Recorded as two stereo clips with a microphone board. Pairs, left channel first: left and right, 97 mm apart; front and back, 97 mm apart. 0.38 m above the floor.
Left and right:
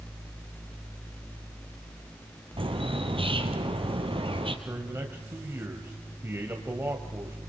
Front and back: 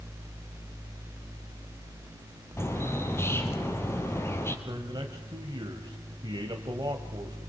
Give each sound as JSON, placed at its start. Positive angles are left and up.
{"t": 2.6, "sound": "a bird", "azimuth_deg": -65, "distance_m": 2.5}
{"t": 4.7, "sound": "a man speaking", "azimuth_deg": -150, "distance_m": 2.0}